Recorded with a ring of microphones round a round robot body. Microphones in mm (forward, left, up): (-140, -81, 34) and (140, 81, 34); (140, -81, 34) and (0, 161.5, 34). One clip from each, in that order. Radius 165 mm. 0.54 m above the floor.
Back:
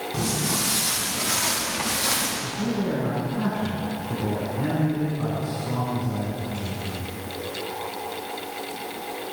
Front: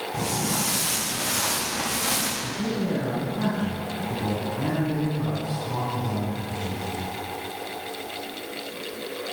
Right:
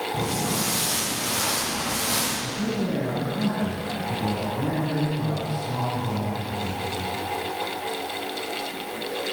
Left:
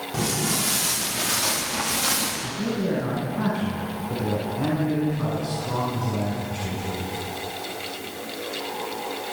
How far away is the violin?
No violin in this recording.